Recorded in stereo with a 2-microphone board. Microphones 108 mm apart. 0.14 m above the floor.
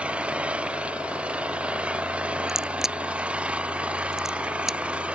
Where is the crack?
5° right (ahead or behind).